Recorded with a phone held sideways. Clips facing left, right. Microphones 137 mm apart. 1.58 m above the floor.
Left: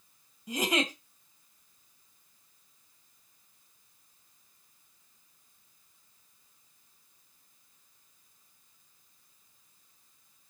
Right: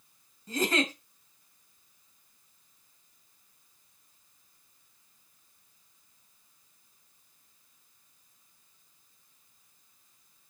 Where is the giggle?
15° left (ahead or behind), 2 m.